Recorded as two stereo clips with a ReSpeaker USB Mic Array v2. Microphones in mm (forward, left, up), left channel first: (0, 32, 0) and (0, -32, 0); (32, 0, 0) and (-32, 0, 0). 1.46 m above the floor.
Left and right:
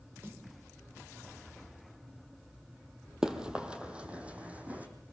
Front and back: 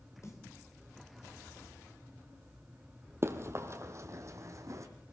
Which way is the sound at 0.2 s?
40° right.